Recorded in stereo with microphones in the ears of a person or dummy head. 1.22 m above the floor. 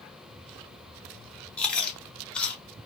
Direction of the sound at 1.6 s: 5° left (ahead or behind).